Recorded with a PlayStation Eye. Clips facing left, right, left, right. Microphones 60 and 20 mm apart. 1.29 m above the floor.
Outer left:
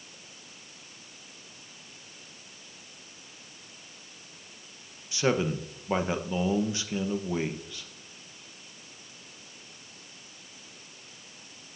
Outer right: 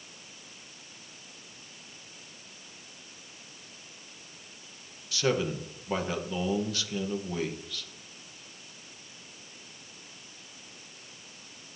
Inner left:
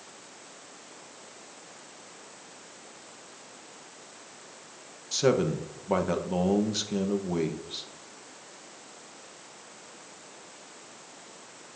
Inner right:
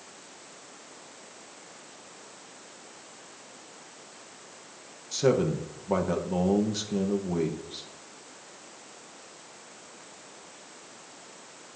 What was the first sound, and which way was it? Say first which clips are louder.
A man speaking: outer left 2 dB, even; 20° left (ahead or behind).